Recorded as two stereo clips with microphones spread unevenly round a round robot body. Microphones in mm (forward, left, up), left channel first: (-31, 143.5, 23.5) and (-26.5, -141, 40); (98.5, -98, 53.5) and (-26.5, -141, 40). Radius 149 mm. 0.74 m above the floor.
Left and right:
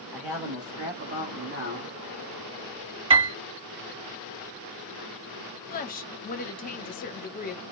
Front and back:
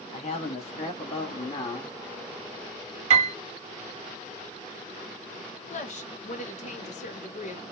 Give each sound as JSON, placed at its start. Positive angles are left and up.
{"t": 0.1, "sound": "a man speaking", "azimuth_deg": 0, "distance_m": 1.3}
{"t": 3.1, "sound": "a piano", "azimuth_deg": -150, "distance_m": 0.7}
{"t": 5.7, "sound": "a woman speaking", "azimuth_deg": 40, "distance_m": 0.7}